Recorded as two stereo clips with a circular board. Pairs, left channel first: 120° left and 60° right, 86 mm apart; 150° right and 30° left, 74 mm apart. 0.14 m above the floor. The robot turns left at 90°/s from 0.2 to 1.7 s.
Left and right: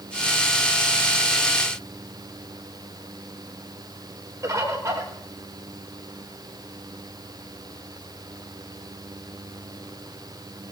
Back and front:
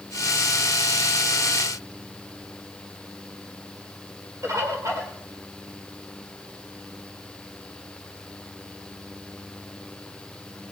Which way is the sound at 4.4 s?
10° right.